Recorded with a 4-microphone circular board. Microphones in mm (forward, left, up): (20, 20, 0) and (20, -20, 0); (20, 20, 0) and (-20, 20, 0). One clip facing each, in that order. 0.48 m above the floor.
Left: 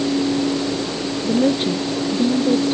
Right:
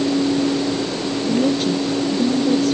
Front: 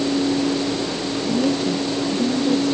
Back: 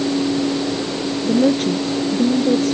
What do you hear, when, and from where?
1.2 s a woman speaking: 150° left